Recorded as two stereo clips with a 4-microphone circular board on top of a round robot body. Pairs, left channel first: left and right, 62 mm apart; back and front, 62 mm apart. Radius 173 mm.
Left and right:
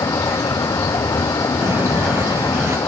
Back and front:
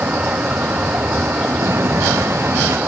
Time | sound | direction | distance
0.0 | a vehicle | 65° left | ?
1.6 | footsteps | 40° right | ?